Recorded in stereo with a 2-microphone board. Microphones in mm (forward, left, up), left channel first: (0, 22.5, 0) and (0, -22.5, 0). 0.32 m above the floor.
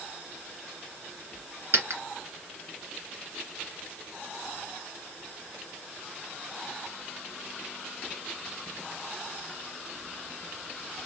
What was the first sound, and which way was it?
A dropped coin, 70° right (ahead or behind).